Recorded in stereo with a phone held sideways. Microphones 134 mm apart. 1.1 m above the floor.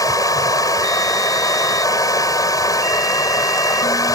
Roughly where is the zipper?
I don't hear a zipper.